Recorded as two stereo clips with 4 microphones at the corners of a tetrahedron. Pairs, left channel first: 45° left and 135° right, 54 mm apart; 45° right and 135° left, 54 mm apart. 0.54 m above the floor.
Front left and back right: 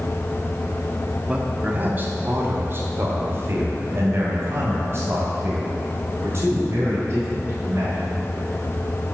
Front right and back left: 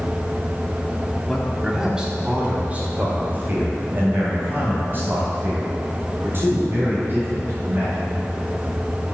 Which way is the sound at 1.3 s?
120° right.